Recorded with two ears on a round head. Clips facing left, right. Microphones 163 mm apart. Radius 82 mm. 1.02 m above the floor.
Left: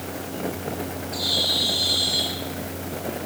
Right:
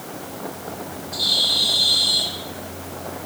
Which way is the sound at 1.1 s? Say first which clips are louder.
Left 2 dB; 35° right (ahead or behind).